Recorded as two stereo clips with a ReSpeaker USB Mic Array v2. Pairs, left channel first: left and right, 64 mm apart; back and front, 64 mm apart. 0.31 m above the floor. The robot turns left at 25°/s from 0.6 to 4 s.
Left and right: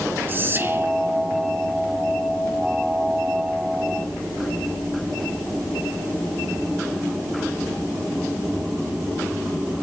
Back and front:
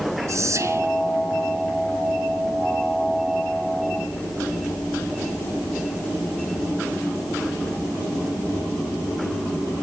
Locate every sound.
0.3 s whispering: 35° right, 3.5 m; by 0.9 s 40° right, 3.5 m